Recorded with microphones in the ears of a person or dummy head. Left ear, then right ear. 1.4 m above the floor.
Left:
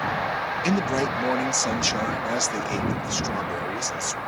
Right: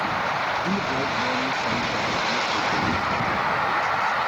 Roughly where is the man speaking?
Left.